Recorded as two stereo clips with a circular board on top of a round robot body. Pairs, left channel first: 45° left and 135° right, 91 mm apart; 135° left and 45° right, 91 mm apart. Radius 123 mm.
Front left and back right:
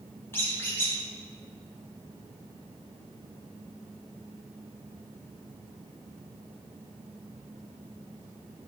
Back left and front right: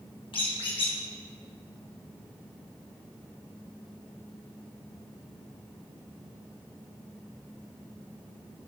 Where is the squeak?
110° left, 2.5 m.